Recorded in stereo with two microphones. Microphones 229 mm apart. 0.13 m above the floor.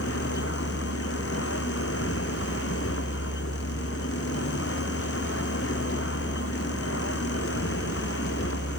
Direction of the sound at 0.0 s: 75° left (ahead or behind).